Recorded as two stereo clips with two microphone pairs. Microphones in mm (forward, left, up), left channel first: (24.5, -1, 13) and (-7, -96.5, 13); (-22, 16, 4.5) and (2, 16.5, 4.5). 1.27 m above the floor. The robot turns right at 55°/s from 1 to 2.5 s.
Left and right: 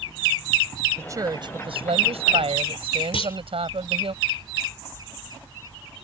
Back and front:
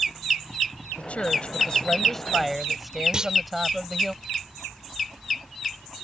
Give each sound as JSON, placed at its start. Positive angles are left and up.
{"t": 1.0, "sound": "a woman speaking", "azimuth_deg": -170}
{"t": 3.1, "sound": "a clunk", "azimuth_deg": 55}